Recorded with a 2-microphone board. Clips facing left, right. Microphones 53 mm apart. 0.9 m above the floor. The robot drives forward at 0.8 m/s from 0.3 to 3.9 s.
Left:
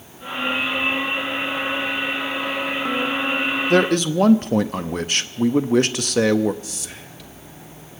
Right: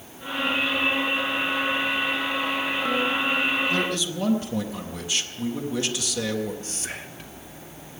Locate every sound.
3.7 s a man speaking: 65° left (ahead or behind), 0.7 m; by 6.5 s 55° left (ahead or behind), 0.7 m
6.6 s whispering: 40° right (ahead or behind), 1.1 m